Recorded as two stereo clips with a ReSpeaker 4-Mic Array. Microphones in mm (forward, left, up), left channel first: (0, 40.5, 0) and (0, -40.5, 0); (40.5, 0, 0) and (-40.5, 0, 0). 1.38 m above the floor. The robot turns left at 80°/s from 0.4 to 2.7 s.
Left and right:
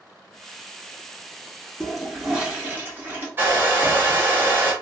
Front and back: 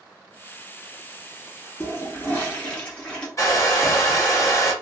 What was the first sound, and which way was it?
A toilet flushing, 15° left.